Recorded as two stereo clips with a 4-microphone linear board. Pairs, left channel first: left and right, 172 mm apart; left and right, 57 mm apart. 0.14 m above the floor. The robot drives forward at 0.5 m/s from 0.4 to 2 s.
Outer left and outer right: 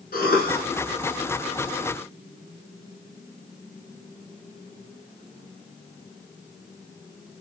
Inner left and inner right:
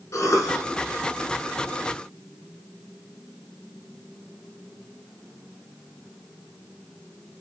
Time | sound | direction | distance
0.1 | a cough | 55° left (ahead or behind) | 5 m